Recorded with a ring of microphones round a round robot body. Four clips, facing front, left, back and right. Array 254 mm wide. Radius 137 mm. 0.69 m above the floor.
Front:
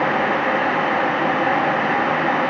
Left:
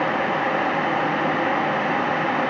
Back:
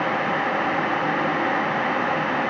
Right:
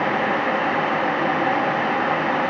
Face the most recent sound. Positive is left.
No sound to turn to.